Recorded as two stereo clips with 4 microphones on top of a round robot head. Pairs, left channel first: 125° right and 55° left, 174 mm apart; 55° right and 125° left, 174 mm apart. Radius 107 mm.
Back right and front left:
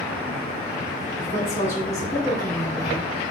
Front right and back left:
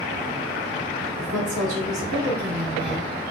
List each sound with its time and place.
1.2 s a woman speaking: 165° left, 1.7 m